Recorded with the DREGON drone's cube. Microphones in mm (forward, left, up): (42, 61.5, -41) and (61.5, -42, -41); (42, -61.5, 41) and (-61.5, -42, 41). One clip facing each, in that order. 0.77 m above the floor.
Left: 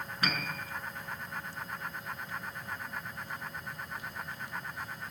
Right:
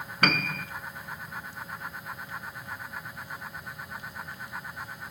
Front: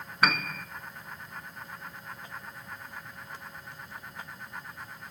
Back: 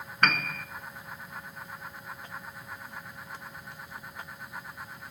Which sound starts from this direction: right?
A piano, at 0.2 s.